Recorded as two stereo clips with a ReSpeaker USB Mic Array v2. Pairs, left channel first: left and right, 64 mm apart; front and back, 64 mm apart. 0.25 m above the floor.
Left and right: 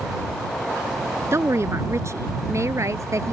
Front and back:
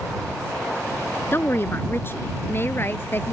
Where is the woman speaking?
50° right.